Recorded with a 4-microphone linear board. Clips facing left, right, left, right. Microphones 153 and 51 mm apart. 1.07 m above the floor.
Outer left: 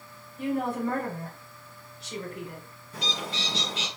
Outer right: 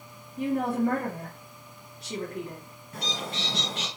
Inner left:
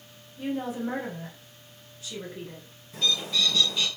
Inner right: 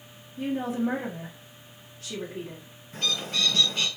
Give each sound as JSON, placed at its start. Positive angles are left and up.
{"t": 0.4, "sound": "a woman speaking", "side_deg": -85, "distance_m": 2.5}
{"t": 2.9, "sound": "a bird", "side_deg": -55, "distance_m": 2.5}